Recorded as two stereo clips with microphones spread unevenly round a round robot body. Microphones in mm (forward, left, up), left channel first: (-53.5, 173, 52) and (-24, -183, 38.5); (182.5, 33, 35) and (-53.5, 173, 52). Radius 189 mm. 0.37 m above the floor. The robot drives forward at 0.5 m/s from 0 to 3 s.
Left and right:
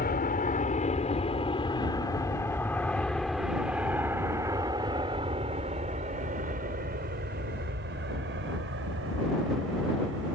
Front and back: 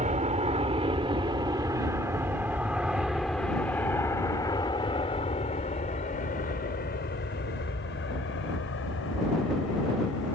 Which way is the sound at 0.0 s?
125° left.